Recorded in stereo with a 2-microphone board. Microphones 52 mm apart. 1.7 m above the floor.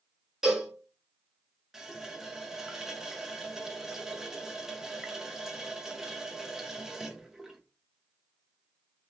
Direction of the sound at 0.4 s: 10° right (ahead or behind).